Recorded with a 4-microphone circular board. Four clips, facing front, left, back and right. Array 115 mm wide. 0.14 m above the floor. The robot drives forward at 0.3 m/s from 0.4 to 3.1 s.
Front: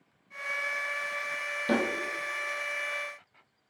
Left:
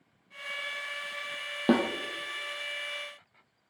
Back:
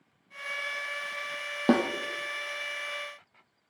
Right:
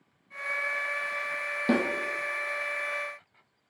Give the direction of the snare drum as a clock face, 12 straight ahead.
7 o'clock.